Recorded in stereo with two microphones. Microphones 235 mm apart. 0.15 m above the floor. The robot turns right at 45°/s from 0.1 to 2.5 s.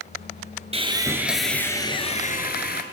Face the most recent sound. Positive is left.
turn(degrees=50)